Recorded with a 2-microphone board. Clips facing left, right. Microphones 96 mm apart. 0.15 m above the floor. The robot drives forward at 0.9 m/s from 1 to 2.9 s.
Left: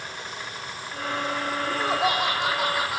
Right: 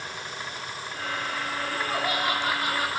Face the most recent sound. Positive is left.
turn(degrees=80)